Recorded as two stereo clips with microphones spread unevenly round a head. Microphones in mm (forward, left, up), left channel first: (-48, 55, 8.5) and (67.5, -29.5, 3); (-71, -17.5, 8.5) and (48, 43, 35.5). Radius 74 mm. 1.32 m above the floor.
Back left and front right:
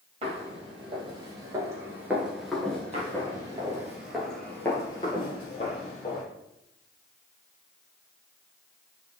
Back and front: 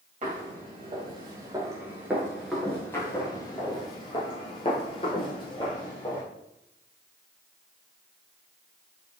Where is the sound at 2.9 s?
75° right, 1.7 m; by 6.2 s 145° left, 2 m.